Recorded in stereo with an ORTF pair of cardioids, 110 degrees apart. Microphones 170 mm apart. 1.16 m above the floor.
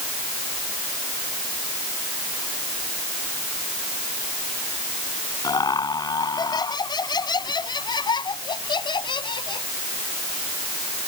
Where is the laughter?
25° left; by 9.7 s 30° left.